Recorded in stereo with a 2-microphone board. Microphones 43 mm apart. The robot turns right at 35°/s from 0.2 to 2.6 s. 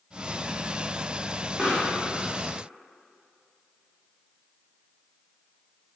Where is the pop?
20° right (ahead or behind), 2.5 m; by 1.9 s 30° right (ahead or behind), 2.5 m.